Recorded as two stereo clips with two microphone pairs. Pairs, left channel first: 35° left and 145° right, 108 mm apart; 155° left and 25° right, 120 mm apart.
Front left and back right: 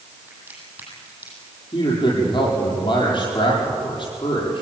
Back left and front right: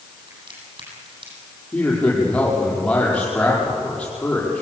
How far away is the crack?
About 8.5 m.